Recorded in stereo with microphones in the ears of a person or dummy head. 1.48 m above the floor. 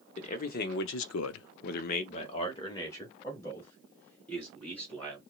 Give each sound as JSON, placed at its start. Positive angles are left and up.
{"t": 0.2, "sound": "a man speaking", "side_deg": 35, "distance_m": 0.9}